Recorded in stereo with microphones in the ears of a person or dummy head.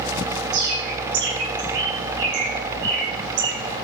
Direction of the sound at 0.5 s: 60° right (ahead or behind).